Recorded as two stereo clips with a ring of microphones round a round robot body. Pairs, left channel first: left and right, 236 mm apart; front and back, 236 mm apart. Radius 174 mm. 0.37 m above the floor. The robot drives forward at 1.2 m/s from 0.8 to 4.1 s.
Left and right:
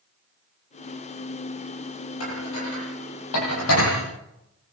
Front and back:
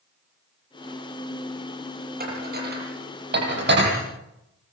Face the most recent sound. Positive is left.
turn(degrees=140)